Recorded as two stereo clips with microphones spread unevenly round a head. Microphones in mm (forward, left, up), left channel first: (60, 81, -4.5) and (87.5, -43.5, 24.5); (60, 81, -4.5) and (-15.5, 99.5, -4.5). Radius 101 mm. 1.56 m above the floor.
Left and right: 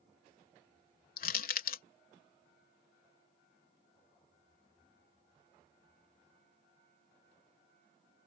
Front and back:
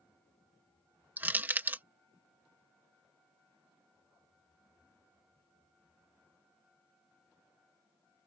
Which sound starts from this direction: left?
Crushing, at 1.2 s.